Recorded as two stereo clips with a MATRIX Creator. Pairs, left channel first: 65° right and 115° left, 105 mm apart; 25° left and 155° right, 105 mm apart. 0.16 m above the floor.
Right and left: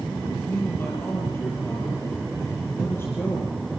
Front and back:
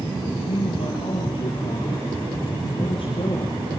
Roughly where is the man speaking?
Ahead.